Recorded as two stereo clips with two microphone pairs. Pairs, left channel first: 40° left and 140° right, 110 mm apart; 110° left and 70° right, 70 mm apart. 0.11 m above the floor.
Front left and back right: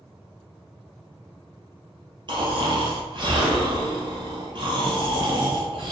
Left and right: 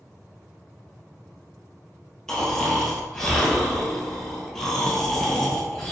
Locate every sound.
2.3 s snoring: 165° right, 1.4 m